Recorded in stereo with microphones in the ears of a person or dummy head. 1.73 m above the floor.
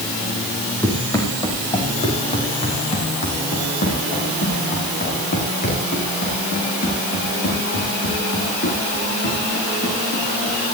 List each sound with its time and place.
0.8 s running footsteps: 15° left (ahead or behind), 3.5 m; by 10.5 s 55° left (ahead or behind), 12 m